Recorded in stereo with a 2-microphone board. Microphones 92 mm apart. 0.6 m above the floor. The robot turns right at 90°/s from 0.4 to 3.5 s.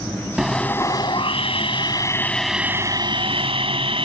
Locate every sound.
0.4 s sawing: 5° right; by 4.1 s 85° right